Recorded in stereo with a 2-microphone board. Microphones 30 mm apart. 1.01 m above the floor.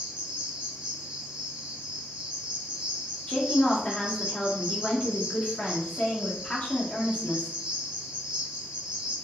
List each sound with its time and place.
0.0 s an insect: 35° right (ahead or behind), 1.1 m
3.3 s a woman speaking: 35° left (ahead or behind), 1.3 m